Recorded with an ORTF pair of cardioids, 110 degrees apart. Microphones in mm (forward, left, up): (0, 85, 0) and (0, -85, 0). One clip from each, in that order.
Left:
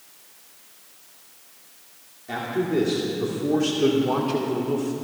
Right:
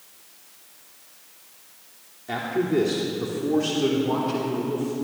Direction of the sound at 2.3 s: 15° right.